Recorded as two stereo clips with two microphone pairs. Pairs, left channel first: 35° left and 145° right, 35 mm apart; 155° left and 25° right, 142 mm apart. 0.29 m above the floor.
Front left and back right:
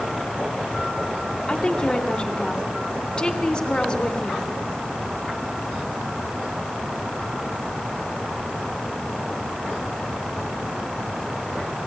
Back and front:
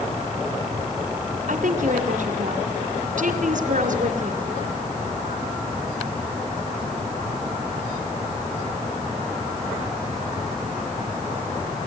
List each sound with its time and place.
1.5 s a woman speaking: 20° right, 2.5 m